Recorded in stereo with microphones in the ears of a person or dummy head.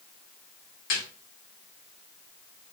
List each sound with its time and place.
0.9 s a snare drum: 60° left (ahead or behind), 1.1 m